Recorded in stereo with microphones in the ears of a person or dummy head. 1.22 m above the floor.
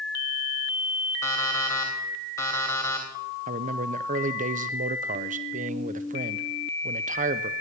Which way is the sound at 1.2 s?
15° left (ahead or behind).